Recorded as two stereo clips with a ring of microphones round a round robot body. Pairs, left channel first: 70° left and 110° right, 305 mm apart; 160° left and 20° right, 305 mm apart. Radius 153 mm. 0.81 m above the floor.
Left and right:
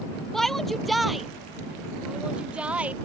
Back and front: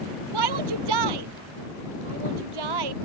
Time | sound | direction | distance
0.3 | a shout | 20° right | ?